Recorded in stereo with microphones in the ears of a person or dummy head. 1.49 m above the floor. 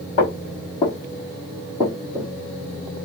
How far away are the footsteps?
About 2 m.